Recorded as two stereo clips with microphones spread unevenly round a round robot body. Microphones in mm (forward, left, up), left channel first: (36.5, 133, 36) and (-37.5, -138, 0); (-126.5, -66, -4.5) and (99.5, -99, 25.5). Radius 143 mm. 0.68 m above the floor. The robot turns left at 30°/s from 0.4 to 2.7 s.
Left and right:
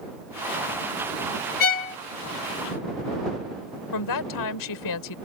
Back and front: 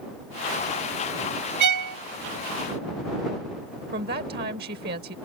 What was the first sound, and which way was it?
A violin, 15° left.